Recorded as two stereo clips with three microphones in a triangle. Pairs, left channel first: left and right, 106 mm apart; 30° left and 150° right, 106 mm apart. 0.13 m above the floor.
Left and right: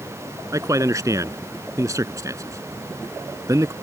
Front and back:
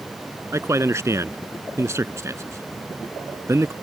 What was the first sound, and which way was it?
A man speaking, 115° right.